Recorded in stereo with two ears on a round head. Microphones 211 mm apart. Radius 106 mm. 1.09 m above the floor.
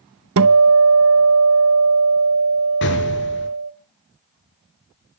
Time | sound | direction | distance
0.4 | a guitar | 60° right (ahead or behind) | 0.9 m
2.8 | an explosion | 55° left (ahead or behind) | 5.5 m